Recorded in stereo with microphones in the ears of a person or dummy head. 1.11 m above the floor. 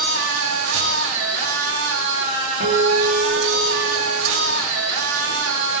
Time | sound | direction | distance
0.0 | a machine running | 75° right (ahead or behind) | 2 m
2.6 | a guitar | 60° right (ahead or behind) | 2.5 m